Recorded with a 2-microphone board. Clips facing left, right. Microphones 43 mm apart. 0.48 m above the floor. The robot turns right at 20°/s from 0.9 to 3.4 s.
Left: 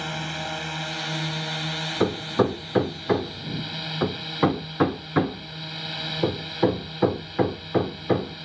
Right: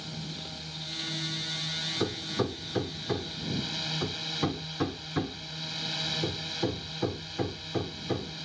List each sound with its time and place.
0.0 s a drone: 115° left; by 8.5 s 165° left
2.0 s hammering: 35° left (ahead or behind); by 8.4 s 40° left (ahead or behind)